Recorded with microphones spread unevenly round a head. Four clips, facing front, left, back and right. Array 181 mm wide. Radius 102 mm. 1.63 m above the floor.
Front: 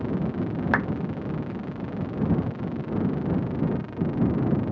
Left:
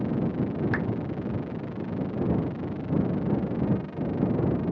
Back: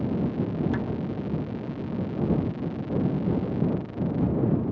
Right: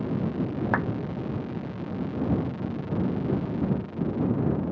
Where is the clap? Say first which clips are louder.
Right 2 dB, front 4 dB; 55° right.